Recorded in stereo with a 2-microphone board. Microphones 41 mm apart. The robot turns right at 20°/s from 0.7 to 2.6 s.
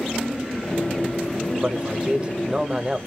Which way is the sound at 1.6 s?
40° right (ahead or behind).